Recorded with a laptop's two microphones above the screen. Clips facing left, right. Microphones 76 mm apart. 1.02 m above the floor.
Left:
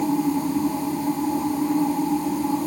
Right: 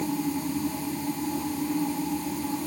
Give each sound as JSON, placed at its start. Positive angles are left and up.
{"t": 0.0, "sound": "a machine running", "side_deg": 30}